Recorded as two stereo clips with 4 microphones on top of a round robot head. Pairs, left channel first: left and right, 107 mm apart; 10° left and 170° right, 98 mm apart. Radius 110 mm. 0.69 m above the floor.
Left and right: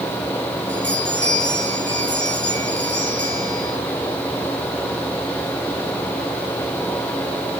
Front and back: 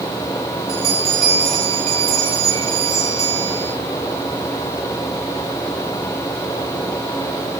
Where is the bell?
170° left, 9.5 m.